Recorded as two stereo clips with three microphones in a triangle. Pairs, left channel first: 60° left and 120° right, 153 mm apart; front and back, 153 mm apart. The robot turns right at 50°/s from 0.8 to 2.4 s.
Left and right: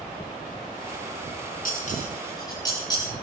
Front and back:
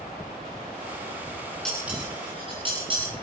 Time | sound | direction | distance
1.6 | dishes clattering | 85° left | 10 m